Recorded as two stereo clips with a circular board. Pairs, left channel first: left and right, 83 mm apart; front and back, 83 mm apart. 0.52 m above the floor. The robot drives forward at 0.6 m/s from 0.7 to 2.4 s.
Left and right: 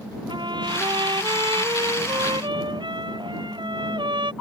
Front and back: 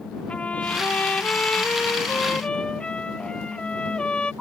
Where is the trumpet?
75° right; by 4.3 s 80° right.